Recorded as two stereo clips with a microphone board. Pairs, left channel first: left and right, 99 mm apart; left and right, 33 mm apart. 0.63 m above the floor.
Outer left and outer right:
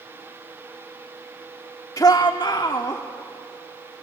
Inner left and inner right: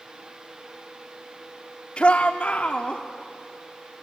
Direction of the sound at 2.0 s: 40° left (ahead or behind).